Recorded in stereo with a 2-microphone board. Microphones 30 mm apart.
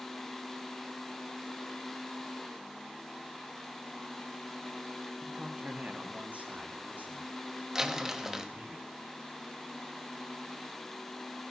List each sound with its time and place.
5.2 s a man speaking: 25° right (ahead or behind), 1.8 m; by 8.8 s 75° right (ahead or behind), 6 m
7.8 s crumpling: 20° right (ahead or behind), 1.1 m